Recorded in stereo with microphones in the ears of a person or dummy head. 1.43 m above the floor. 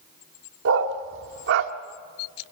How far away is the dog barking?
About 1.7 m.